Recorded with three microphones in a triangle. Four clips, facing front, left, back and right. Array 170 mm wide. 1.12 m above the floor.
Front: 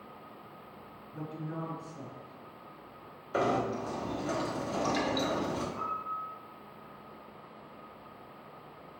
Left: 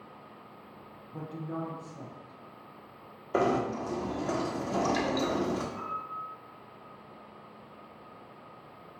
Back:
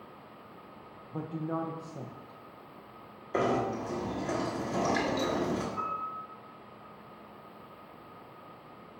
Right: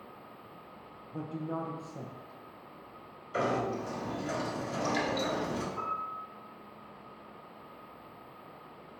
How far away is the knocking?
About 1.2 m.